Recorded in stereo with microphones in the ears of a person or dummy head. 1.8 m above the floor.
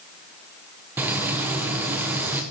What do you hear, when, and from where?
1.0 s frying: 15° right (ahead or behind), 0.8 m